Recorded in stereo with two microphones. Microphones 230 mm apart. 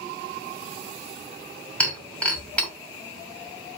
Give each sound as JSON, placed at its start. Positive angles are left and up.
{"t": 1.8, "sound": "breaking glass", "side_deg": 5, "distance_m": 2.0}